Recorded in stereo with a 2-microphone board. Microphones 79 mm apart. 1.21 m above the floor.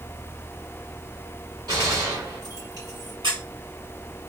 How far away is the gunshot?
About 2.5 m.